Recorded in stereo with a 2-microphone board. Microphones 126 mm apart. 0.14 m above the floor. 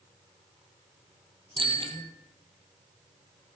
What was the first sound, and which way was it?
A bicycle bell, 45° right (ahead or behind).